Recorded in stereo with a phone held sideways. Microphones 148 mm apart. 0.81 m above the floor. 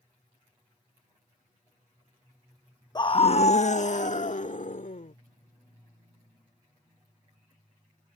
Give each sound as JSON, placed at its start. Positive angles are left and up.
{"t": 3.0, "sound": "a scream", "side_deg": 30}